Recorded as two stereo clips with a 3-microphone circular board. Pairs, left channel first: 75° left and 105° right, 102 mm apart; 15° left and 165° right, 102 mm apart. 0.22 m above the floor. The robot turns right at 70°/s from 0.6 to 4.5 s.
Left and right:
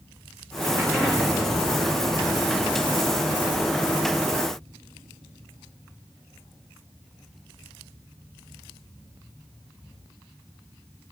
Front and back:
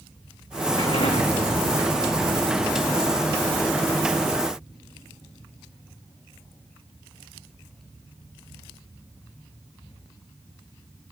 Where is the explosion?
35° right, 6 m; by 5.7 s 135° right, 6 m.